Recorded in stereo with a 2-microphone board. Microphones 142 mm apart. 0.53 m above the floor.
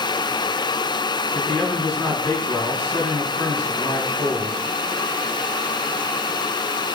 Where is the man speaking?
5° right (ahead or behind), 6 m.